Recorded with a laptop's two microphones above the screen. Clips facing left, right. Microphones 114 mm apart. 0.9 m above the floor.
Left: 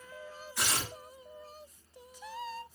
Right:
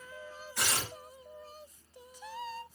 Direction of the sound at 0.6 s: 60° right (ahead or behind).